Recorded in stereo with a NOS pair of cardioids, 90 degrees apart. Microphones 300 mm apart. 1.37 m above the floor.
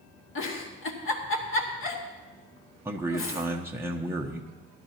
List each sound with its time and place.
0.3 s a giggle: 45° left, 2 m
2.9 s a man speaking: 10° right, 1.0 m